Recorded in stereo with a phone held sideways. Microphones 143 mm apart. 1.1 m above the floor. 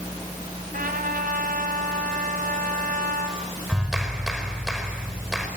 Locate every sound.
0.7 s a trumpet: 80° right, 3.5 m
3.7 s a clap: 5° right (ahead or behind), 5 m